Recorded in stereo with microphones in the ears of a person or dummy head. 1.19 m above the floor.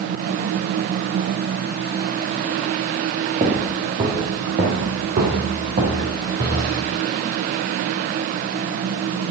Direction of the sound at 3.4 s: 25° right (ahead or behind).